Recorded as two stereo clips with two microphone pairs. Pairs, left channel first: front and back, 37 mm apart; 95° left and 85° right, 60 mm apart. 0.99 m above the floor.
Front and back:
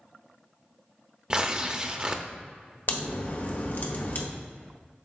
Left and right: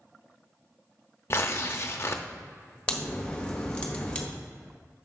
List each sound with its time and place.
1.3 s tearing paper: 120° left, 0.6 m
2.9 s a crack: 25° left, 1.1 m